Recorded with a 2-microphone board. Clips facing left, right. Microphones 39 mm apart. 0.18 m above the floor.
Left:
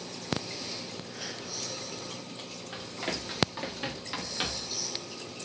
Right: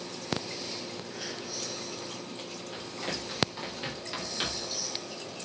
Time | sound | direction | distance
2.7 | running footsteps | 25° left (ahead or behind) | 3.5 m